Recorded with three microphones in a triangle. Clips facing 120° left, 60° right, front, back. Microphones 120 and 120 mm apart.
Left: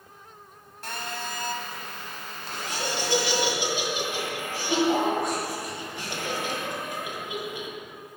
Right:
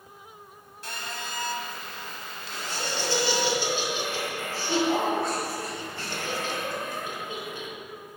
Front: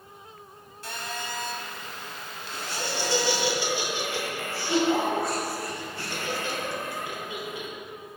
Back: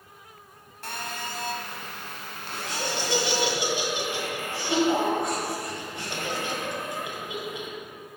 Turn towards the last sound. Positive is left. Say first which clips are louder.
# left 2 dB, even
turn(degrees=160)